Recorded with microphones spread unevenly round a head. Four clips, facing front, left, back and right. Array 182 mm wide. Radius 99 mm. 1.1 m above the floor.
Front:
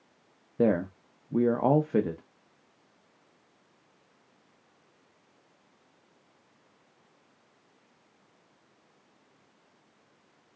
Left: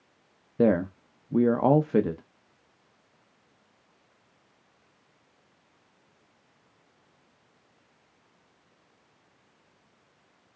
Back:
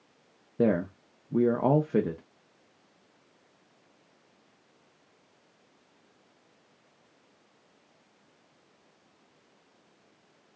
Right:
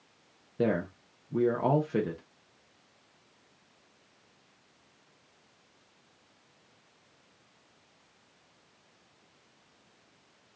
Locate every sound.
0.6 s a man speaking: 145° left, 0.5 m